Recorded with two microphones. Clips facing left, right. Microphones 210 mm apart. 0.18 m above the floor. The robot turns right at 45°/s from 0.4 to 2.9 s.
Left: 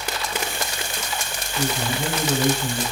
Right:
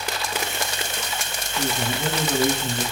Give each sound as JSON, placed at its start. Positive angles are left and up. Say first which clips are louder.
{"t": 1.6, "sound": "a man speaking", "louder": "left 1 dB", "side_deg": 15, "distance_m": 1.6}